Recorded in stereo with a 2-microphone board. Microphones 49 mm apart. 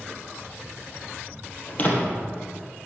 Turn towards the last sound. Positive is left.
turn(degrees=30)  # may be behind; listen again after turning